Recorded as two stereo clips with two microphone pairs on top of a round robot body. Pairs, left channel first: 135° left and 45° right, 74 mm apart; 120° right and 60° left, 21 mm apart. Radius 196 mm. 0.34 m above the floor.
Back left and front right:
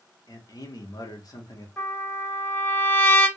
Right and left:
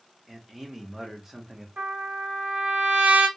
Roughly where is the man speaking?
Behind left.